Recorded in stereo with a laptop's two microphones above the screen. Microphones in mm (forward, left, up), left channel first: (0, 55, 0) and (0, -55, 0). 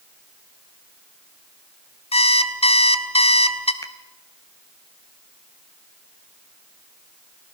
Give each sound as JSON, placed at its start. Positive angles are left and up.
{"t": 2.1, "sound": "an alarm clock", "side_deg": 65, "distance_m": 1.1}
{"t": 3.8, "sound": "a finger snap", "side_deg": 30, "distance_m": 0.8}